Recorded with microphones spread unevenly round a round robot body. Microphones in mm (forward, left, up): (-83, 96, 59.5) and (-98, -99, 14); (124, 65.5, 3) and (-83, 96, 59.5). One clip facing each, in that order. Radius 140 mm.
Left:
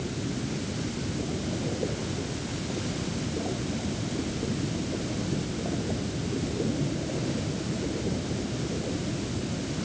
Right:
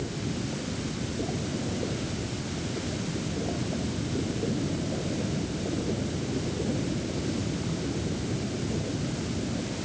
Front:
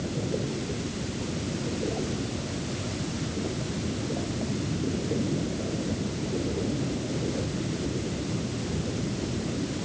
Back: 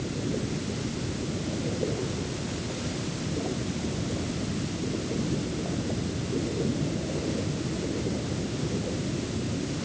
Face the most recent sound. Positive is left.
No sound to turn to.